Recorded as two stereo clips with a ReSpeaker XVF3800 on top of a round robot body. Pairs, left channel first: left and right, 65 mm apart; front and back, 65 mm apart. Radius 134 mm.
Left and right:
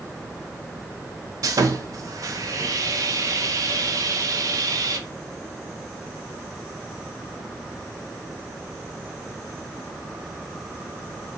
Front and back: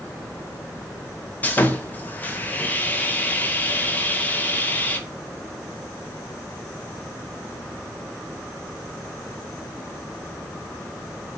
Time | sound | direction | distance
1.4 | sawing | 65° right | 0.7 m